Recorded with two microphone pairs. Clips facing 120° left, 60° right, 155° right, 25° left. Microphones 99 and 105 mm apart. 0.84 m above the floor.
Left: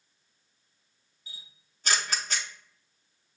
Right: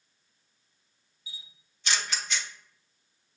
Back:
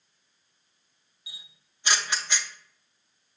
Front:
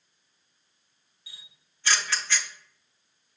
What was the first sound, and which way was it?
A camera shutter, 135° left.